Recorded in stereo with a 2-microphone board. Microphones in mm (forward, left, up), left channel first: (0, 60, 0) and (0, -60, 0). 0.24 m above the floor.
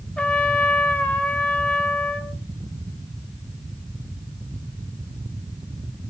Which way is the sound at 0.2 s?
10° left (ahead or behind).